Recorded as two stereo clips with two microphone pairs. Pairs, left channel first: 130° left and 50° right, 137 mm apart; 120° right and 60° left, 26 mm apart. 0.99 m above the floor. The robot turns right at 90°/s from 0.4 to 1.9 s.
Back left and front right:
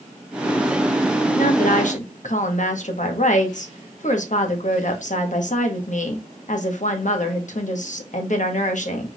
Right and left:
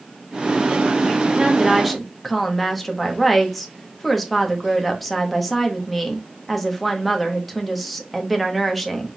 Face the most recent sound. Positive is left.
turn(degrees=155)